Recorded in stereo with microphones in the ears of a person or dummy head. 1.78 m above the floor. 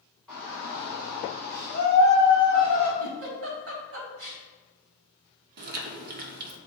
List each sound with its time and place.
0.3 s a shout: 5° left (ahead or behind), 2.5 m; by 2.9 s 25° left (ahead or behind), 4.5 m
3.0 s a giggle: 70° right (ahead or behind), 1.7 m
5.6 s chewing: 45° right (ahead or behind), 0.8 m